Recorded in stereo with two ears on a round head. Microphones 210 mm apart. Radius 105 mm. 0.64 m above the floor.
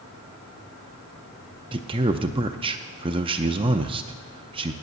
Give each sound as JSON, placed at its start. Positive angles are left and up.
{"t": 1.7, "sound": "a man speaking", "side_deg": -20, "distance_m": 0.5}